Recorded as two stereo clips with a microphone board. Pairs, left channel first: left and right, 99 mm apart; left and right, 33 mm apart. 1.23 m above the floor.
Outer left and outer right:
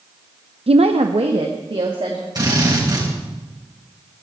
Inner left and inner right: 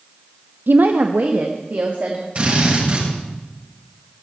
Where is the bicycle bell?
No bicycle bell in this recording.